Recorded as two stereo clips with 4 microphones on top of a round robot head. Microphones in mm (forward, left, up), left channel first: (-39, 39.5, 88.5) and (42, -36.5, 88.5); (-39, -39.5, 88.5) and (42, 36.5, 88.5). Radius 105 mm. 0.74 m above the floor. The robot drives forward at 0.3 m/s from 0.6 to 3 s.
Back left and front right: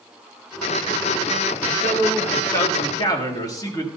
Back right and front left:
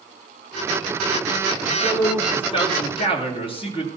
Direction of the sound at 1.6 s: 165° right.